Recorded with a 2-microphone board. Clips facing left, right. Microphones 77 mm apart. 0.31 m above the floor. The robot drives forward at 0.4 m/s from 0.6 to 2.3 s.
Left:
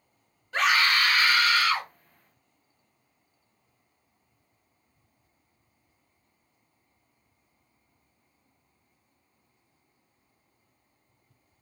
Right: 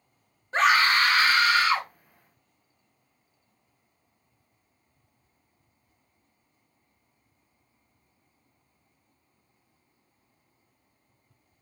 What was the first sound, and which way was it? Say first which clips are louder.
A scream: right 3 dB; 35° right (ahead or behind).